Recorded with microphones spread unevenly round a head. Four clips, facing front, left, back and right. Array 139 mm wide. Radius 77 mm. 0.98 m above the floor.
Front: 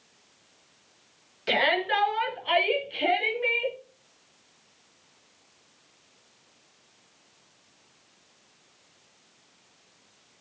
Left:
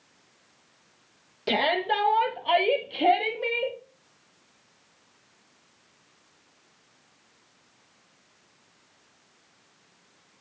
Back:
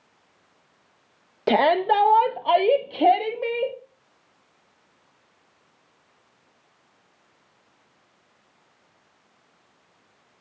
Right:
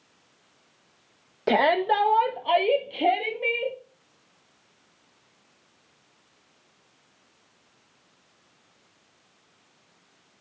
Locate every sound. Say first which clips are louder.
1.5 s a shout: right 4 dB, back 7 dB; 155° right, 1.1 m; by 3.8 s 170° left, 1.9 m